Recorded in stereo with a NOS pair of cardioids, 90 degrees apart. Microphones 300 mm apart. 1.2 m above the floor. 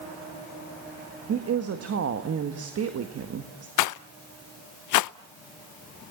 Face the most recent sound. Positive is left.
turn(degrees=70)